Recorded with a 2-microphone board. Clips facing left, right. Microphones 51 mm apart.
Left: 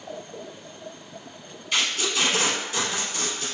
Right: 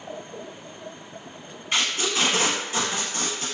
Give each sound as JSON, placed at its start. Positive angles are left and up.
{"t": 1.7, "sound": "tape being pulled", "side_deg": -40, "distance_m": 1.1}